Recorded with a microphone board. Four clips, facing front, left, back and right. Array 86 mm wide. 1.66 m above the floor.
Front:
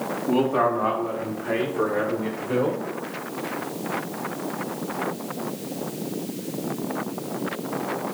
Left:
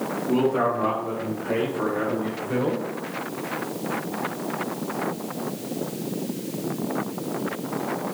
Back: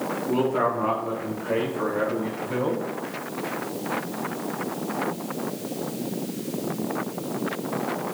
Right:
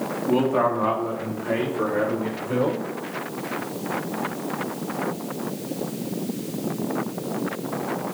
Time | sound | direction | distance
0.3 | a man speaking | 45° right | 4 m